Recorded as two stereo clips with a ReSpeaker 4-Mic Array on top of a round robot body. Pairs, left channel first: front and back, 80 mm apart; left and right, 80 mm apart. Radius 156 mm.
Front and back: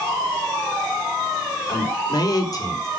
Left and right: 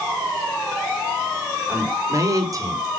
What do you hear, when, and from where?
1.7 s a man speaking: 35° right, 3.5 m; by 2.9 s 45° right, 3.5 m